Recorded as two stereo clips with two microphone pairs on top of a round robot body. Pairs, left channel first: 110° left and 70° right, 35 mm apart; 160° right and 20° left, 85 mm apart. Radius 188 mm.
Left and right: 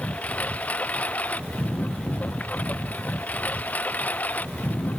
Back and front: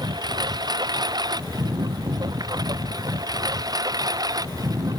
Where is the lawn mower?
60° left; by 5.0 s 65° left.